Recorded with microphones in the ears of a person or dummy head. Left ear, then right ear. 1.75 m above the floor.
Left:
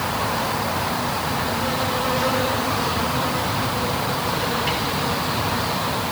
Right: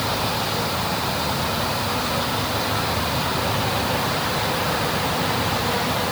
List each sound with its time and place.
Only background noise.